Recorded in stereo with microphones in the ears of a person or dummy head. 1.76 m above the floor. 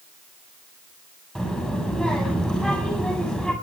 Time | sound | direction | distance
1.4 | a child speaking | centre (ahead or behind) | 6.5 m